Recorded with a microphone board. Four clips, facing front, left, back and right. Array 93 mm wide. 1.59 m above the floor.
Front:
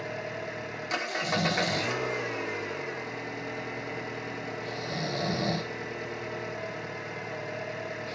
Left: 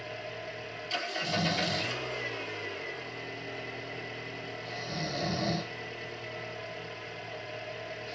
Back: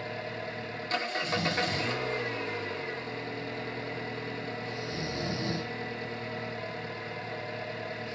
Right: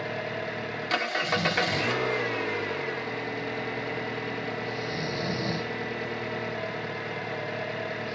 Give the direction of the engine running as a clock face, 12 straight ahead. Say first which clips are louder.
Right 8 dB, front 1 dB; 2 o'clock.